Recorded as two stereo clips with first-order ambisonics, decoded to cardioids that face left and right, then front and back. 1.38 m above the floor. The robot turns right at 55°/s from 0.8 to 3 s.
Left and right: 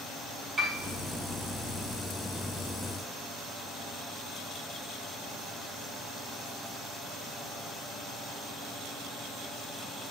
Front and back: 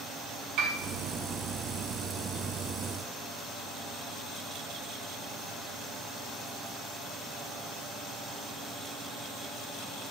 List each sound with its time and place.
0.6 s a piano: 155° right, 2.0 m